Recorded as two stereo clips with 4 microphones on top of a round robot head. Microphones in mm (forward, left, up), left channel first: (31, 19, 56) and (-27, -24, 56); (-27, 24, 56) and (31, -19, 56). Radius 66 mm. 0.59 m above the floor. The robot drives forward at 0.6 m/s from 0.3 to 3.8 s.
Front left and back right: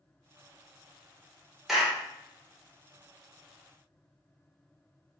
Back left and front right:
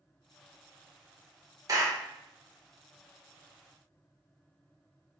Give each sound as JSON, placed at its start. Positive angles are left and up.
{"t": 1.7, "sound": "a clap", "azimuth_deg": -60, "distance_m": 1.5}